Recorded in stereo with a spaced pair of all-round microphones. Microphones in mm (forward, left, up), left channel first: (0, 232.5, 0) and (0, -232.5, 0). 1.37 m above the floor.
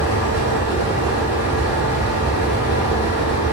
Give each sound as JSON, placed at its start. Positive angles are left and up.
{"t": 0.0, "sound": "a fan", "side_deg": -50, "distance_m": 1.2}